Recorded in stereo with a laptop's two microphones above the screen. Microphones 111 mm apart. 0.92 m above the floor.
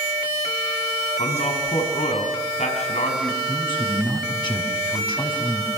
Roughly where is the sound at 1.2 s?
Left.